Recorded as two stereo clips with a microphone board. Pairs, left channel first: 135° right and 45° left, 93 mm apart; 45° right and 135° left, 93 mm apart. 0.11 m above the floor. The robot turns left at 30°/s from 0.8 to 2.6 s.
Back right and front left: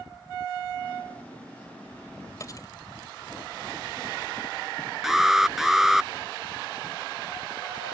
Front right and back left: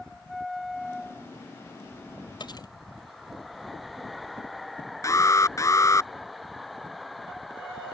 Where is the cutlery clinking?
80° right; by 2.7 s 85° right.